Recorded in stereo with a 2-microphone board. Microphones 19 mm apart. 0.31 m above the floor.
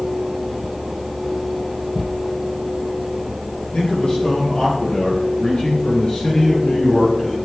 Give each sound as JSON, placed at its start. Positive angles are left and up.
{"t": 3.7, "sound": "a man speaking", "side_deg": 75, "distance_m": 5.5}